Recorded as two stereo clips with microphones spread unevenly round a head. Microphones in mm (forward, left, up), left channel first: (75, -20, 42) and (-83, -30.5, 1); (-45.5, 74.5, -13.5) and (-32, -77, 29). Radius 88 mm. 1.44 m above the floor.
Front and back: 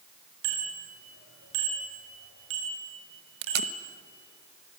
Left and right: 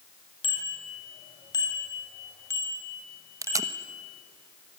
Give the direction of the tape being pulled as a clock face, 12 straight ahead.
5 o'clock.